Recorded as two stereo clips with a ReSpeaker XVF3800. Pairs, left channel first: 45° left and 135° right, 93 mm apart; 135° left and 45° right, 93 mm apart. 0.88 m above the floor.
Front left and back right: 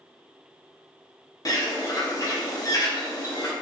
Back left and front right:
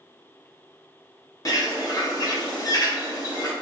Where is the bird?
90° left, 0.6 m.